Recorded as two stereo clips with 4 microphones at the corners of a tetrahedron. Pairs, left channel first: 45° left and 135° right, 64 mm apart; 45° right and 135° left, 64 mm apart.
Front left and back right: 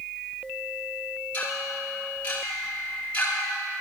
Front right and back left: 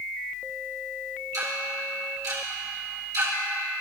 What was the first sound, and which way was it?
Ticking, 105° left.